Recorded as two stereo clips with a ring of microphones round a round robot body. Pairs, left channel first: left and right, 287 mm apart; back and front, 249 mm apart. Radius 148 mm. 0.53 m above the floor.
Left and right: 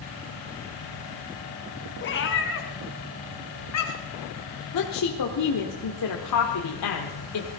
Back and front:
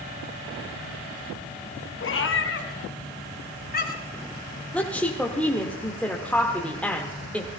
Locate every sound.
2.0 s a cat meowing: 145° left, 1.7 m; by 4.2 s 125° left, 2.5 m
4.7 s a woman speaking: 95° left, 1.4 m